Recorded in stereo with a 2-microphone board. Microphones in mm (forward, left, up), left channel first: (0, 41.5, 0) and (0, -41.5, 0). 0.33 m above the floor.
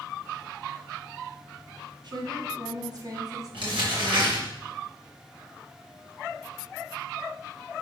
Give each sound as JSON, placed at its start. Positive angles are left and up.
{"t": 2.0, "sound": "a woman speaking", "side_deg": -60, "distance_m": 2.5}
{"t": 3.5, "sound": "crumpling", "side_deg": -80, "distance_m": 4.5}